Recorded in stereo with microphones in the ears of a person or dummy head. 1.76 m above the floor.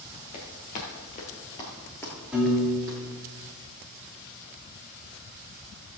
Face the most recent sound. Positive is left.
turn(degrees=-5)  # may be behind; listen again after turning